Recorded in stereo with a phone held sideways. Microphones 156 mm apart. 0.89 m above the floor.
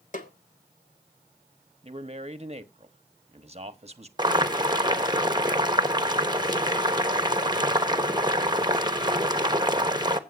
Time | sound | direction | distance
0.1 | a snare drum | 50° left (ahead or behind) | 1.7 m
1.8 | a man speaking | 40° right (ahead or behind) | 1.1 m
4.2 | boiling | 25° right (ahead or behind) | 1.0 m